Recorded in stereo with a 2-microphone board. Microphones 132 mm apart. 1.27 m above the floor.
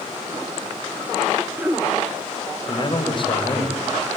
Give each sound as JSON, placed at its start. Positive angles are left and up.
{"t": 1.4, "sound": "throat clearing", "side_deg": -15, "distance_m": 1.1}
{"t": 2.7, "sound": "a man speaking", "side_deg": 40, "distance_m": 4.5}